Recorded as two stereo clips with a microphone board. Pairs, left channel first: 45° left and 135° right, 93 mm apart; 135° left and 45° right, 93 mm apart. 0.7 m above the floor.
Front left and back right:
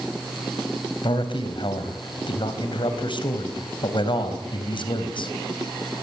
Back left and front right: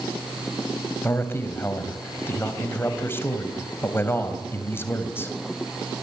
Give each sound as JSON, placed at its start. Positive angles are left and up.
{"t": 1.0, "sound": "a man speaking", "azimuth_deg": 70, "distance_m": 3.5}